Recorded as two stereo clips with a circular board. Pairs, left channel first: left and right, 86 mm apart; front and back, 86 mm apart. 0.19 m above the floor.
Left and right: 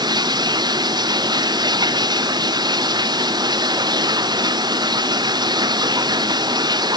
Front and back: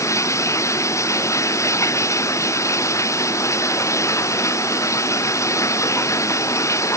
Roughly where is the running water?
Ahead right.